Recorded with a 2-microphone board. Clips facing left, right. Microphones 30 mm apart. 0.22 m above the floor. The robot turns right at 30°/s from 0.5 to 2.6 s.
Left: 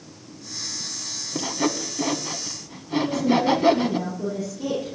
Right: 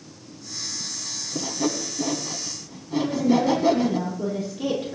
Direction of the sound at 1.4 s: 50° left (ahead or behind).